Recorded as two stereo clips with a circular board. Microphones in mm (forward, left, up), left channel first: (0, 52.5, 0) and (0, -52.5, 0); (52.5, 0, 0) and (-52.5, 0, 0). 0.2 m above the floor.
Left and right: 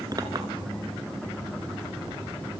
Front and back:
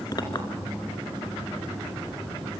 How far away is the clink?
About 2 m.